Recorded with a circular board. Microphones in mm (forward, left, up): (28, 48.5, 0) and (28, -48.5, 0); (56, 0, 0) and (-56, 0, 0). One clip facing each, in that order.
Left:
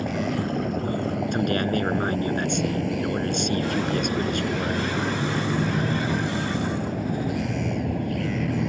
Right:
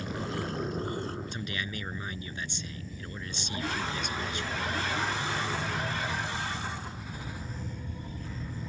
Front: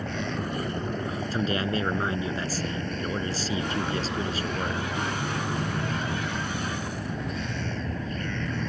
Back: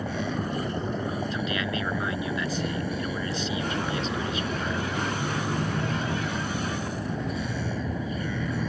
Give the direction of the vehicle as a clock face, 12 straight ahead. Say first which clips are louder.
Left 9 dB, back 1 dB; 9 o'clock.